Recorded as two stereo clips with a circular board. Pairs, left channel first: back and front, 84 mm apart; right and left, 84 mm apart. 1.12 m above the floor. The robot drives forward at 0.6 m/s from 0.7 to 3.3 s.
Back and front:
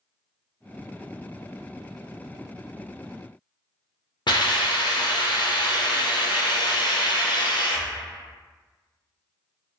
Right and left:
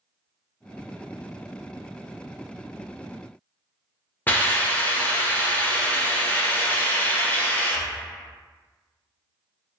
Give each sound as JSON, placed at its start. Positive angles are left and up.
{"t": 4.3, "sound": "a hiss", "azimuth_deg": -160, "distance_m": 0.6}